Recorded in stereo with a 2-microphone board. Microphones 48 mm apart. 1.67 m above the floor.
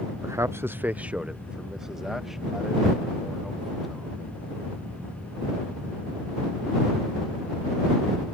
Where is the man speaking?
90° right; by 4.2 s centre (ahead or behind).